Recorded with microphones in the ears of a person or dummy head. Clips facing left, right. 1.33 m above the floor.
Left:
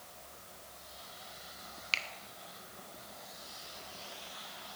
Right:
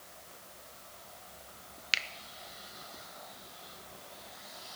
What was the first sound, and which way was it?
A finger snap, 15° right (ahead or behind).